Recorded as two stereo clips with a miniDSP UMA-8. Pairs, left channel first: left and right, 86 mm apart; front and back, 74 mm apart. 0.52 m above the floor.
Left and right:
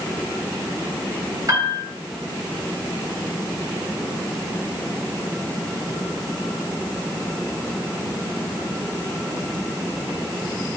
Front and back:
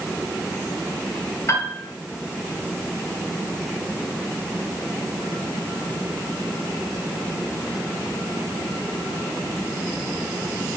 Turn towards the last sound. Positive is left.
turn(degrees=-50)